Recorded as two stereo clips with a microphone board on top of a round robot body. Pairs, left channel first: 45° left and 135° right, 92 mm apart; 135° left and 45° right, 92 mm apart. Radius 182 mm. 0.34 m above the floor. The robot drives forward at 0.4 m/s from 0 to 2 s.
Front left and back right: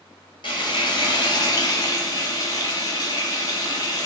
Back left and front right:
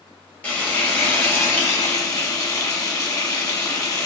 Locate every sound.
0.4 s frying: 65° left, 1.8 m; by 4.1 s 90° left, 1.7 m